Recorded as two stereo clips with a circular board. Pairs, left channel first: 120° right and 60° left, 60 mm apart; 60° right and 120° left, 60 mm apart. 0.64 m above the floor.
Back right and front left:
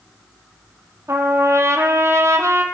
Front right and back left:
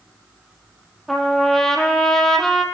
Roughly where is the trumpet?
Ahead.